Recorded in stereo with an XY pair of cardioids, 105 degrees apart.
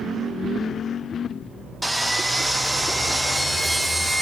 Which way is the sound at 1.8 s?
5° right.